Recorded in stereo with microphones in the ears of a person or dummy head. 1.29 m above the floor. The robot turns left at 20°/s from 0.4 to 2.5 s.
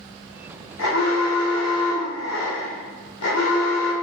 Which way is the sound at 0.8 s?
110° left.